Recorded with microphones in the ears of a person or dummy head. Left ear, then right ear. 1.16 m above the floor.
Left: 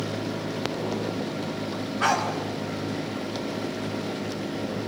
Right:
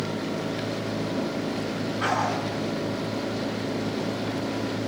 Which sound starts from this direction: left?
A dog barking, at 2.0 s.